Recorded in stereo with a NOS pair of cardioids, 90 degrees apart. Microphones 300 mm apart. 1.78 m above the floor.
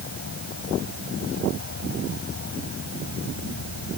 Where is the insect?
45° left.